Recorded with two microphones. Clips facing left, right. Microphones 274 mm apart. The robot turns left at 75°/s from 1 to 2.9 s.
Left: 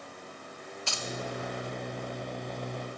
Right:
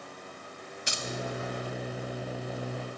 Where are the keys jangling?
20° right (ahead or behind), 0.5 m.